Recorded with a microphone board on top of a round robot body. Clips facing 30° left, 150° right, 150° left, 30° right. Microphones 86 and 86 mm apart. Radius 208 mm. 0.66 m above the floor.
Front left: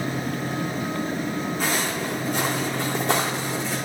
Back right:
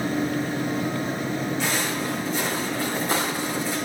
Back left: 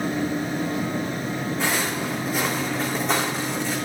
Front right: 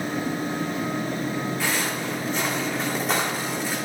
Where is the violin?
I don't hear a violin.